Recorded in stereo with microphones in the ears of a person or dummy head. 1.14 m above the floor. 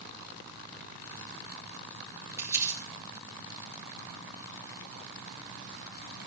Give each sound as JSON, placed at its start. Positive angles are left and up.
{"t": 2.4, "sound": "crumpling", "side_deg": -15, "distance_m": 4.0}